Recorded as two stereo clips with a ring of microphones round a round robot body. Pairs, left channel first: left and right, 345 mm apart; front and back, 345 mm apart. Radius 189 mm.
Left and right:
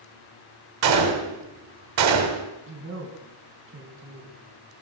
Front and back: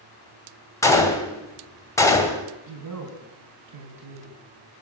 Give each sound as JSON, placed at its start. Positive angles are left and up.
{"t": 0.8, "sound": "a gunshot", "azimuth_deg": -80, "distance_m": 2.5}
{"t": 2.7, "sound": "a woman speaking", "azimuth_deg": -145, "distance_m": 3.5}